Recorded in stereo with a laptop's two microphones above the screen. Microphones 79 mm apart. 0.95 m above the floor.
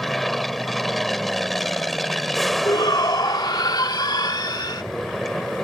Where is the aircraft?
Centre (ahead or behind).